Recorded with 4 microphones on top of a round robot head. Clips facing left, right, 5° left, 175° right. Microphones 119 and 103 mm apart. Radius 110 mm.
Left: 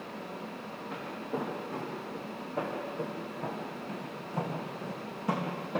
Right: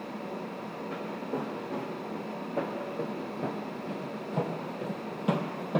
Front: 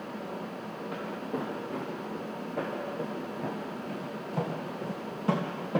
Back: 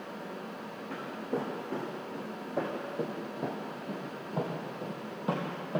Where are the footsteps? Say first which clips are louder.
Right 1 dB, back 1 dB; 150° right, 4 m; by 5.8 s 70° right, 2 m.